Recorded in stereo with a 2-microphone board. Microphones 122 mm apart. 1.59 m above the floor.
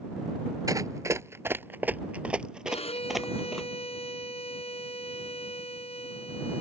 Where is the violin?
55° left (ahead or behind).